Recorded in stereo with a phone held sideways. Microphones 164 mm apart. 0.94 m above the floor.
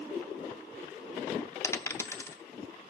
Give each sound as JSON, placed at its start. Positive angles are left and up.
{"t": 1.6, "sound": "a dropped coin", "side_deg": 15, "distance_m": 0.6}